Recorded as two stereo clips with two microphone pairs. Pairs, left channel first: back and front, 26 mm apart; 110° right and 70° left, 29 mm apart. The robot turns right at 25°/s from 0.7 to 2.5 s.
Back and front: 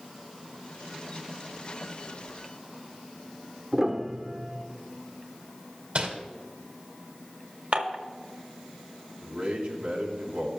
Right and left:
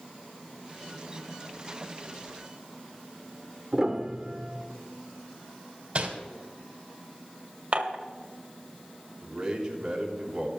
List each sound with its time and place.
3.7 s a piano: 15° left, 1.2 m
6.0 s crumpling: 20° left, 2 m
7.7 s dishes clattering: 30° left, 1.4 m
9.2 s a man speaking: 5° right, 3 m